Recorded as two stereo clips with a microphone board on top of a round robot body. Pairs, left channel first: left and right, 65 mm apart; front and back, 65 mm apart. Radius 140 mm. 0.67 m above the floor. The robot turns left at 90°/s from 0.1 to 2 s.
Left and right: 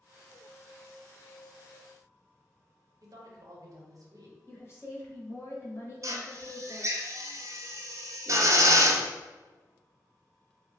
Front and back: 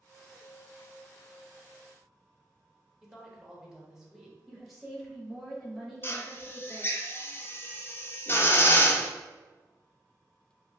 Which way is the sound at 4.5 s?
95° left.